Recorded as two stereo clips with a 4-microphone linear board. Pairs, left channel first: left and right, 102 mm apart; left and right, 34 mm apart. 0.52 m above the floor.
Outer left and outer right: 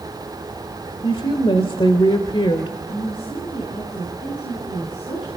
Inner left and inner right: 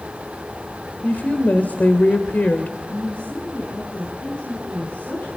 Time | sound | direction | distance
1.0 | a woman speaking | 60° left (ahead or behind) | 1.7 m
2.9 | a woman speaking | 65° left (ahead or behind) | 7 m